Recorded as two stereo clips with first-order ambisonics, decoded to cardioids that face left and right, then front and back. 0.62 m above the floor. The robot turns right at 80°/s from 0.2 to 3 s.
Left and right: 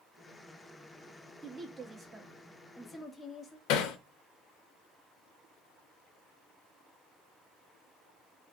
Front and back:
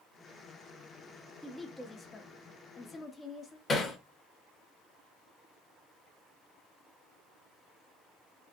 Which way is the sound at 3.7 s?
75° left.